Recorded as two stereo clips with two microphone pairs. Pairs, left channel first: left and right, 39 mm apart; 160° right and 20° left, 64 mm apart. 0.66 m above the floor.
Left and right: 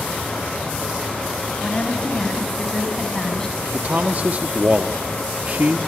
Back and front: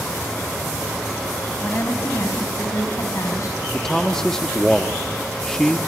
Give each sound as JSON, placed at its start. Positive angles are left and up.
{"t": 1.6, "sound": "a woman speaking", "azimuth_deg": 150, "distance_m": 5.5}
{"t": 3.7, "sound": "a man speaking", "azimuth_deg": -80, "distance_m": 1.1}